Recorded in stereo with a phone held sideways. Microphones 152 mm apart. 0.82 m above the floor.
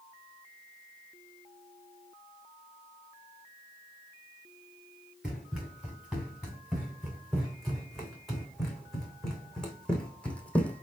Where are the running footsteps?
Centre (ahead or behind), 5.5 m; by 10.8 s 10° left (ahead or behind), 1.7 m.